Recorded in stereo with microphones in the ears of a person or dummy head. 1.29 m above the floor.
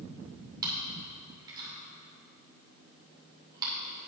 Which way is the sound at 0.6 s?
25° right (ahead or behind).